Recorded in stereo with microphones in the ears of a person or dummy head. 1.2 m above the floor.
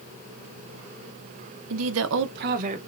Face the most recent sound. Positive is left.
turn(degrees=-35)  # may be behind; listen again after turning